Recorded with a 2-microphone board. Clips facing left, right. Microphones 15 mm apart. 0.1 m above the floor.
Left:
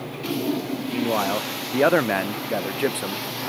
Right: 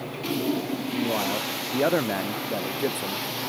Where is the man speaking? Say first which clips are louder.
Left 4 dB; 35° left (ahead or behind).